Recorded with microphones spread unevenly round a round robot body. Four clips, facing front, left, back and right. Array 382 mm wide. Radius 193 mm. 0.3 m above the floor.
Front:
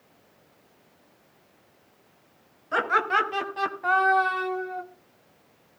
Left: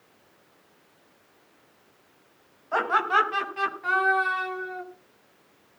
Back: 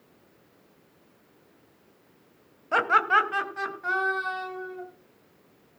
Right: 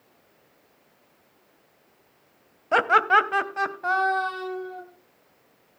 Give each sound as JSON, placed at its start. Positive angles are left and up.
{"t": 2.7, "sound": "laughter", "azimuth_deg": -95, "distance_m": 1.9}